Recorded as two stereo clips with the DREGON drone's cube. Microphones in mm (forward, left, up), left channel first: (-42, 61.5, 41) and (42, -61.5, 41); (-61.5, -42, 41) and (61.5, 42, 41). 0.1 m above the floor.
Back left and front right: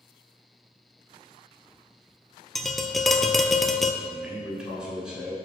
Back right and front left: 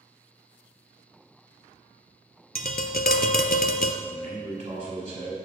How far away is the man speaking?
About 1.8 m.